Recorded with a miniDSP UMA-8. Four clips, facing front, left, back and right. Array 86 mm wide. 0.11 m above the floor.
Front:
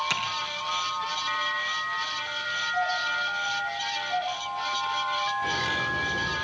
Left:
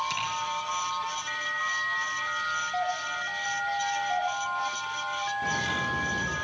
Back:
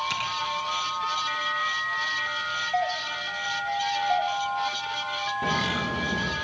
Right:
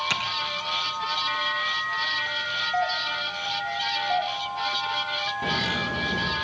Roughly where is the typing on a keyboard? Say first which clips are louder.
Right 3 dB, even; ahead right.